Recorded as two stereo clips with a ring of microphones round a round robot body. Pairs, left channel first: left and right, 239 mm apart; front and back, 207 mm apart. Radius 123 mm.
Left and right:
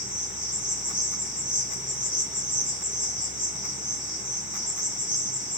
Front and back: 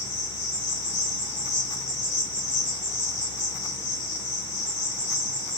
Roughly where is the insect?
Ahead.